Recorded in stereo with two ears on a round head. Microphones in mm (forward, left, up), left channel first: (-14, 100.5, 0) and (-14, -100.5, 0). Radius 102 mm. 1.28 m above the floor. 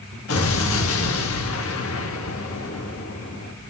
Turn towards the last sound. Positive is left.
turn(degrees=75)  # may be behind; listen again after turning